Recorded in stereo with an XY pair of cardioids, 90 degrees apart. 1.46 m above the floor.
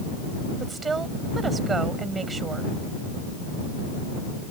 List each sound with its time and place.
0.6 s a woman speaking: 35° right